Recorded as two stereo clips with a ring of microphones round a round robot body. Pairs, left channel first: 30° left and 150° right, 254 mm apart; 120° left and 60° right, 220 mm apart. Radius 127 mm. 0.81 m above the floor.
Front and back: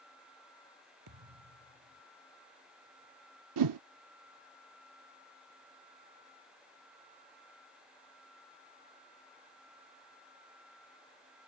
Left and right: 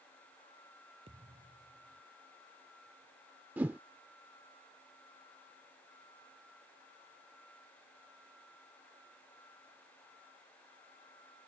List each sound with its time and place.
1.1 s a thud: 130° right
3.6 s a whoosh: 145° right